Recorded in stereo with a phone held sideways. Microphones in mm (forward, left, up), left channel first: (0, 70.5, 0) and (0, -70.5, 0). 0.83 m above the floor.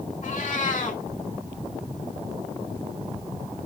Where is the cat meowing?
65° left (ahead or behind), 2 m.